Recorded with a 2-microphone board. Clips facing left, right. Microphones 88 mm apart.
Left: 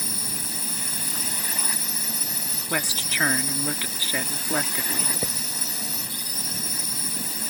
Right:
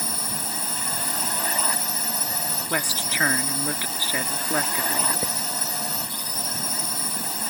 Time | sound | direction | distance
0.0 | a drone | 60° right (ahead or behind) | ?
2.7 | a woman speaking | 20° right (ahead or behind) | ?
5.2 | writing | 10° left (ahead or behind) | ?